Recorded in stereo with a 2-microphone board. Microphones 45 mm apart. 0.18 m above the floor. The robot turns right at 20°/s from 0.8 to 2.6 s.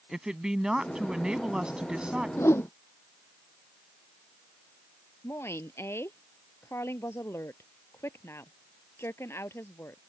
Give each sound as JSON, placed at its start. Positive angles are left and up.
{"t": 0.1, "sound": "a woman speaking", "side_deg": -15}
{"t": 2.4, "sound": "a whoosh", "side_deg": 80}
{"t": 5.2, "sound": "a woman speaking", "side_deg": 70}